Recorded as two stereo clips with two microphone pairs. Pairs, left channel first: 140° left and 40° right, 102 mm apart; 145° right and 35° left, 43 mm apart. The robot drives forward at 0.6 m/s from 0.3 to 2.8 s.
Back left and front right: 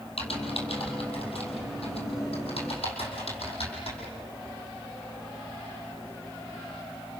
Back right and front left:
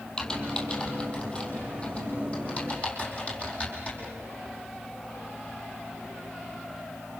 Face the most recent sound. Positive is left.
turn(degrees=155)